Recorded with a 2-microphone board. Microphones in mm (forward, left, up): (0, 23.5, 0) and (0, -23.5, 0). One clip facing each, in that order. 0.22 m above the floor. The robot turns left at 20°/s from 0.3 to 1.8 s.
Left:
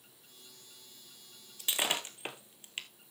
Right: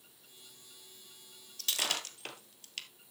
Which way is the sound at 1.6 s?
15° left (ahead or behind).